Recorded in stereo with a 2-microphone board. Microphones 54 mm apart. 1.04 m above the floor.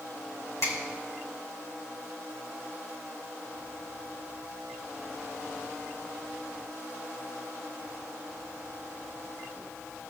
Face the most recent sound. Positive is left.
turn(degrees=60)  # may be behind; listen again after turning